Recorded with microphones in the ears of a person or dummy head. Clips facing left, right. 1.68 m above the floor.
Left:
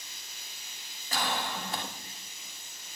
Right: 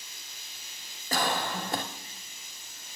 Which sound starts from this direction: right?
A cough, at 1.1 s.